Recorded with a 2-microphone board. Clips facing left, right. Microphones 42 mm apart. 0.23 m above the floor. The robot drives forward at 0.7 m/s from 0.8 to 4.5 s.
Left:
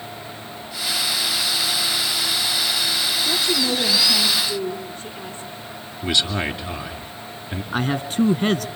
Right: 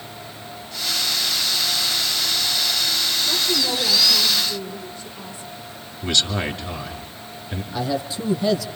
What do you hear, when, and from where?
3.2 s a woman speaking: 45° left (ahead or behind), 4.5 m; by 5.5 s 40° left (ahead or behind), 5 m
6.0 s a man speaking: 10° left (ahead or behind), 2.5 m
7.7 s a man speaking: 50° left (ahead or behind), 1.6 m